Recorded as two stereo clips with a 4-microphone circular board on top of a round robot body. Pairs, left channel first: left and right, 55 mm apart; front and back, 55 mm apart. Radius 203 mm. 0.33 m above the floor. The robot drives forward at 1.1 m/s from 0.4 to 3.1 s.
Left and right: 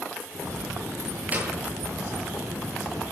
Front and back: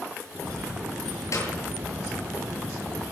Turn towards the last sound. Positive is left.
turn(degrees=-35)